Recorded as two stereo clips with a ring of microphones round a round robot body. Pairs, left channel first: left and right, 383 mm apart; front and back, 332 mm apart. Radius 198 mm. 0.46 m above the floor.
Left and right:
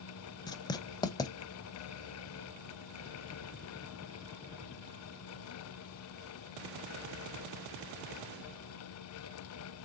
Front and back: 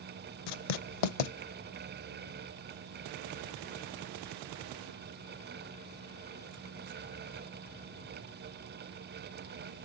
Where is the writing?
10° left, 0.7 m.